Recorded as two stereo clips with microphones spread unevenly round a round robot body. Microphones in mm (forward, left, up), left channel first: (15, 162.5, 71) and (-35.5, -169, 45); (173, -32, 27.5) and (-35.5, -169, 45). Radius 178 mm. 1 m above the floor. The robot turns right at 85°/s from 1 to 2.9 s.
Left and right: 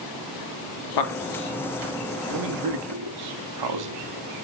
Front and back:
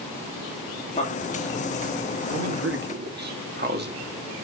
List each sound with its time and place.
1.0 s a man speaking: 105° left, 1.8 m; by 3.9 s 95° right, 1.8 m